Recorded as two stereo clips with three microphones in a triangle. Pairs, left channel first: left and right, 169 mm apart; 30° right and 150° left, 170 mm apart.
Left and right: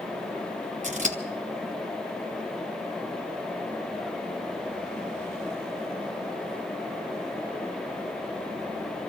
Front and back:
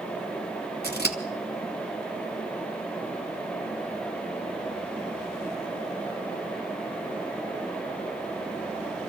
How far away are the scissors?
About 2.0 m.